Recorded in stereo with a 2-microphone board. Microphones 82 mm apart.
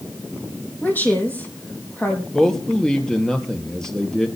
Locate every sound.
0.8 s a woman speaking: 20° left (ahead or behind), 4.5 m
2.3 s a man speaking: 5° left (ahead or behind), 3 m